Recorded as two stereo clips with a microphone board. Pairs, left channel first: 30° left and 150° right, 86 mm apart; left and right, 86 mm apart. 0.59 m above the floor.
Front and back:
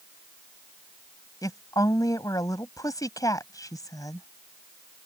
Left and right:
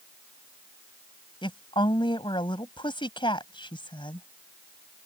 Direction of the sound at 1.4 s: 75° left.